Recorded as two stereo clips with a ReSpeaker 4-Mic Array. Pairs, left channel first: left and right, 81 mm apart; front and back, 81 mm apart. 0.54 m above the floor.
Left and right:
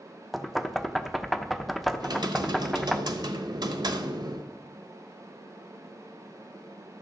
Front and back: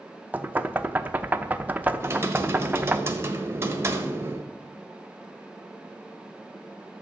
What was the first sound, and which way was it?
Knocking, straight behind.